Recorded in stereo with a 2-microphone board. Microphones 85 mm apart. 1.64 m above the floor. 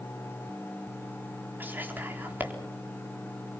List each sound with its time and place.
1.6 s whispering: 25° right (ahead or behind), 4 m